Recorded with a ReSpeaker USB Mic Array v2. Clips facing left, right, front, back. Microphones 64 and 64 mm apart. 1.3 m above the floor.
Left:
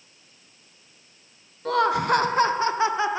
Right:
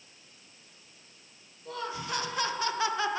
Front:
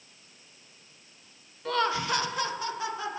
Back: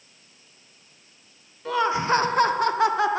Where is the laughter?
95° left, 0.5 m; by 3.2 s 160° left, 1.1 m.